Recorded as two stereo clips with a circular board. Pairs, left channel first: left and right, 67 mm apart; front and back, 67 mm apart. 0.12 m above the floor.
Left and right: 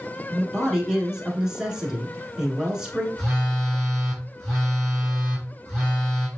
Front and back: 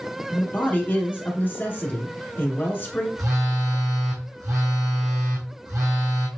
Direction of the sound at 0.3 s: 20° right.